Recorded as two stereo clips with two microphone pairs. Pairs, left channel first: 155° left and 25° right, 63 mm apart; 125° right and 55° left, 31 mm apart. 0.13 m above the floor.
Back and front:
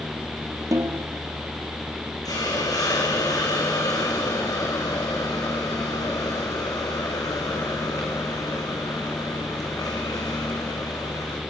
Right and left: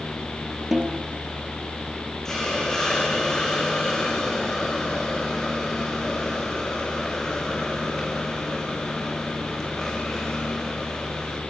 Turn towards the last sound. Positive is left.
turn(degrees=165)